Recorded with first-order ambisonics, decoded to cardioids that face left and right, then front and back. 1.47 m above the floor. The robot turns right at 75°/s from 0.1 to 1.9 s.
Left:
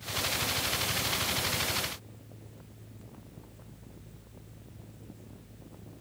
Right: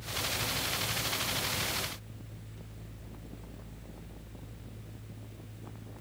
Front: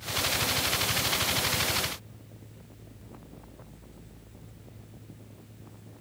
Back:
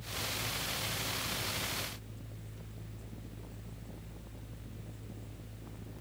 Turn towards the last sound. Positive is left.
No sound to turn to.